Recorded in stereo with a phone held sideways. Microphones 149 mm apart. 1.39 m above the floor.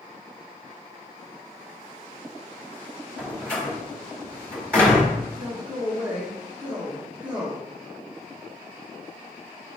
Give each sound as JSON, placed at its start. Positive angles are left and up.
{"t": 3.2, "sound": "a door slam", "side_deg": 10, "distance_m": 4.0}
{"t": 5.4, "sound": "a man speaking", "side_deg": -10, "distance_m": 1.7}